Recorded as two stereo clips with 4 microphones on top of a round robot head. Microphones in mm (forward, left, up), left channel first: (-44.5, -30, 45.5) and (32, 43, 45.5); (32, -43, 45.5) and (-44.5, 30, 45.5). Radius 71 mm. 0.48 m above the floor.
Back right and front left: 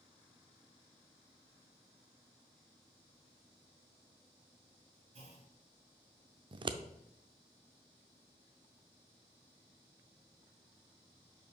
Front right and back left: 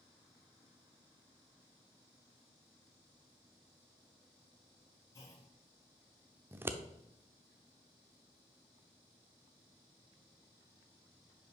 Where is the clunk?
20° left, 1.7 m.